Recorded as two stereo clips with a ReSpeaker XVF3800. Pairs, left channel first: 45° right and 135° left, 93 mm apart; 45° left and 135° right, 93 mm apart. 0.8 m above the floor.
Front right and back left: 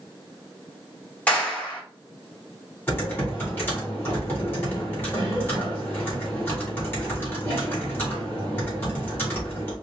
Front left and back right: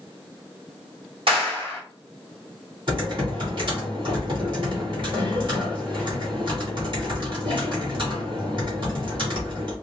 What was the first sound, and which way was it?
A clap, 120° right.